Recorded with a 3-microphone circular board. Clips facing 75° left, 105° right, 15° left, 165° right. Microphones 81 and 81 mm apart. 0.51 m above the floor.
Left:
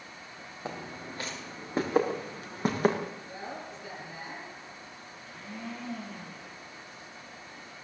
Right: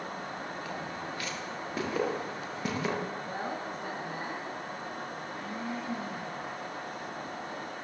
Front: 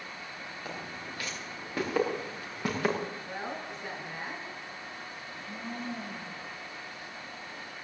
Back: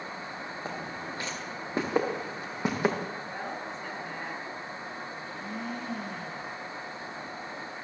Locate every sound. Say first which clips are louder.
0.7 s footsteps: right 2 dB, back 3 dB; 135° left, 6 m; by 3.0 s 120° left, 6 m
3.3 s a woman speaking: right 5 dB, back 1 dB; 70° right, 5 m
5.2 s a blender: right 1 dB, back 4 dB; 175° right, 7 m